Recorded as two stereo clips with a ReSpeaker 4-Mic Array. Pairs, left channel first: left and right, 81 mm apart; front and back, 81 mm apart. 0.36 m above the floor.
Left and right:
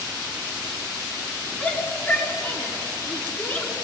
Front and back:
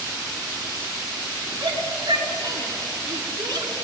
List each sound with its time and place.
1.6 s a shout: 155° left, 5.5 m